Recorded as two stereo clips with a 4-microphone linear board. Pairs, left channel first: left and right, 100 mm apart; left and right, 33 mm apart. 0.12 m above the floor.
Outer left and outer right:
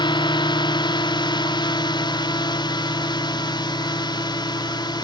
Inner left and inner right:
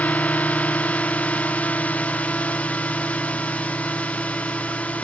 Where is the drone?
50° left (ahead or behind); by 5.0 s 45° left (ahead or behind).